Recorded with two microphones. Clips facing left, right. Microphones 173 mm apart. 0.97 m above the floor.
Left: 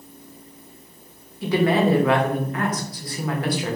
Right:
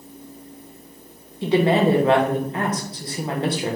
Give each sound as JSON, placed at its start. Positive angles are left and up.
{"t": 1.4, "sound": "a woman speaking", "side_deg": -25, "distance_m": 0.6}